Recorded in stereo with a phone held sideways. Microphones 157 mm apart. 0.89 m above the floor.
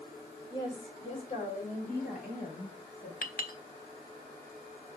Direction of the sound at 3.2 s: 70° left (ahead or behind).